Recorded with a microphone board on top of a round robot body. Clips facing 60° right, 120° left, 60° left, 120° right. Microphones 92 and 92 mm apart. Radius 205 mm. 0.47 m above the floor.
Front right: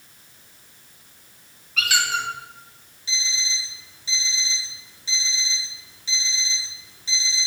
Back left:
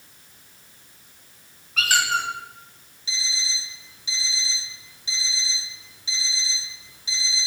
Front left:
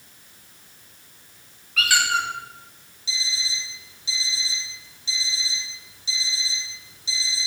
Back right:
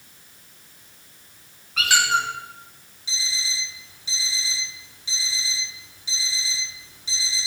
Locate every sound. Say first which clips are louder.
1.8 s a squeak: back left 1 dB, back right 1 dB; 175° left, 1.8 m
3.1 s an alarm clock: front right 1 dB, even; 165° right, 4 m